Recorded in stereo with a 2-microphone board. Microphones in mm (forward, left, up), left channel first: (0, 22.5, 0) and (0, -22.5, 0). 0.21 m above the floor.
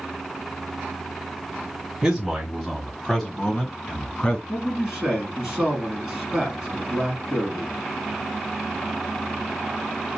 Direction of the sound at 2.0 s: 5° right (ahead or behind).